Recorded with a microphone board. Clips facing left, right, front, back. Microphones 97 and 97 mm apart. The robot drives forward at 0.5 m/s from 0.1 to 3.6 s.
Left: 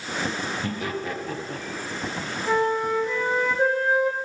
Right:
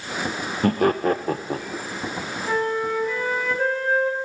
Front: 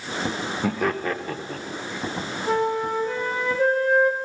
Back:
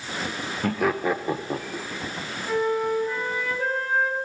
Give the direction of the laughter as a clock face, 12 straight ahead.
3 o'clock.